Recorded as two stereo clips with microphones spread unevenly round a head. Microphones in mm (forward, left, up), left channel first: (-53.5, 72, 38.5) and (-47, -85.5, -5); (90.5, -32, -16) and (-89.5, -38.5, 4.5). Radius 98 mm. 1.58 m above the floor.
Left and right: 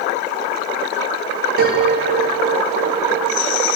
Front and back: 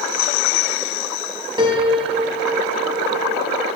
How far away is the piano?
About 3.5 m.